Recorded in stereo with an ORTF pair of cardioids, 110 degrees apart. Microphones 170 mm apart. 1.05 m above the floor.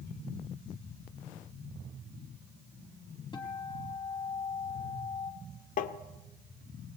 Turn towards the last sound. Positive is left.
turn(degrees=55)